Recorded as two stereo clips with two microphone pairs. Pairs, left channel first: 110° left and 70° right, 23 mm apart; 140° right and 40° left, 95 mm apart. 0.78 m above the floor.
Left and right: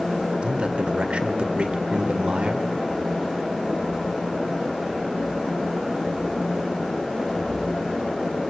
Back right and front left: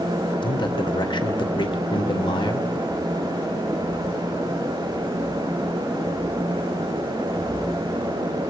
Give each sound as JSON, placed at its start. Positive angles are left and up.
{"t": 0.4, "sound": "a man speaking", "azimuth_deg": -110, "distance_m": 2.5}